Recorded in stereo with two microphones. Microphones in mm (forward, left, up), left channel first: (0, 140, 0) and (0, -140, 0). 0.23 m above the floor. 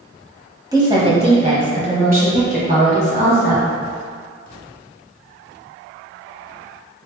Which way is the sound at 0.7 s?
15° right (ahead or behind).